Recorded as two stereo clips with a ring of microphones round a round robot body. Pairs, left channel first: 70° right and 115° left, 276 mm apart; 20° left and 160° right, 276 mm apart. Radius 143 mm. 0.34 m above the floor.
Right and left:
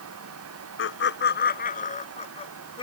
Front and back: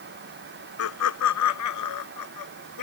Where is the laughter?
20° right; by 2.8 s 5° left.